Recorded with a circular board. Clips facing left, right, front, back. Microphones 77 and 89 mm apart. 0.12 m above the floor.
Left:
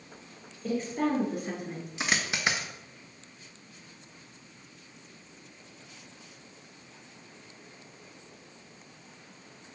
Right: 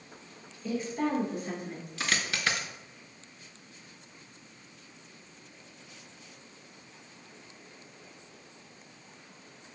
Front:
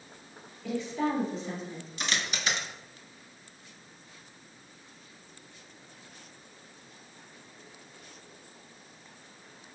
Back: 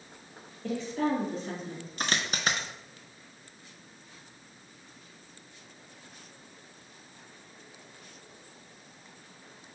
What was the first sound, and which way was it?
A woman speaking, 135° left.